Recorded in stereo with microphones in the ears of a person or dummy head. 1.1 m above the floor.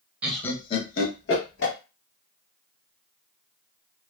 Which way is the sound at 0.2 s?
10° right (ahead or behind).